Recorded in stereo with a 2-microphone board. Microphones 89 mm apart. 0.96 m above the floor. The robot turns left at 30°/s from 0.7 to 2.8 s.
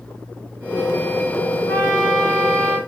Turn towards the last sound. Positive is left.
turn(degrees=0)